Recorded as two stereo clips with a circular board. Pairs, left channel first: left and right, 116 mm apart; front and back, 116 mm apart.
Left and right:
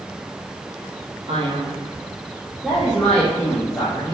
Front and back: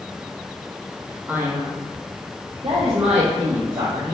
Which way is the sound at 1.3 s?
110° right.